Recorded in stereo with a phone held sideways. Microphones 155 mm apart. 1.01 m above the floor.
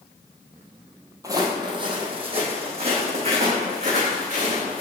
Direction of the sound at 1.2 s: 25° right (ahead or behind).